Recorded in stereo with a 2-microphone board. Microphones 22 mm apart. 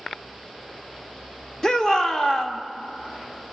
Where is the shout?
30° left (ahead or behind), 1.0 m.